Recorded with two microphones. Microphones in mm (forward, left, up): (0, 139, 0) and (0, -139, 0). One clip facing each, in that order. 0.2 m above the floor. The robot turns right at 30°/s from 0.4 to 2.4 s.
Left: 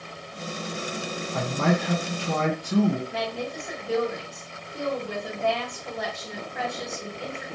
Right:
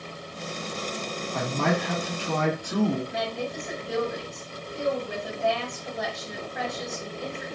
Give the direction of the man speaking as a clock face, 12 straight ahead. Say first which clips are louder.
Left 2 dB; 11 o'clock.